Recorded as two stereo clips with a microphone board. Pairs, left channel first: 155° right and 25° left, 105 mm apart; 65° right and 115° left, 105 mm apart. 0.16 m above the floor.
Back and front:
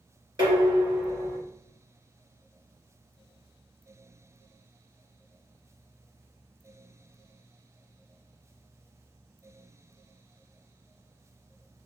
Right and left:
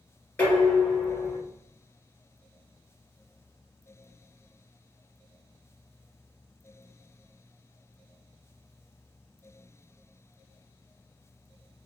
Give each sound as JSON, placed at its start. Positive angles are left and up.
{"t": 0.4, "sound": "dishes clattering", "azimuth_deg": 0, "distance_m": 1.6}